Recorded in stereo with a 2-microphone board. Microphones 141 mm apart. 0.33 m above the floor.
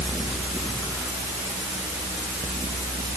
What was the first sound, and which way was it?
Only background noise.